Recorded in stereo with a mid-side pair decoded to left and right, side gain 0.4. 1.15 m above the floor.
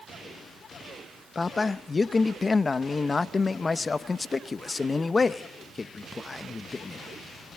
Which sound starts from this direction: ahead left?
A man speaking, at 1.4 s.